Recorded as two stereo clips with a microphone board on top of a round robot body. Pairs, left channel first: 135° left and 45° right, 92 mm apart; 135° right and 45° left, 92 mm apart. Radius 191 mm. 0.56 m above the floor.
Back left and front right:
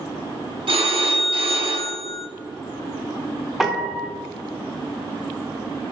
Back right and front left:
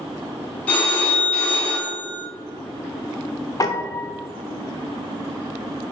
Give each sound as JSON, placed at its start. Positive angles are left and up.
{"t": 0.7, "sound": "a phone ringing", "azimuth_deg": -60, "distance_m": 1.5}
{"t": 3.6, "sound": "a piano", "azimuth_deg": -130, "distance_m": 0.9}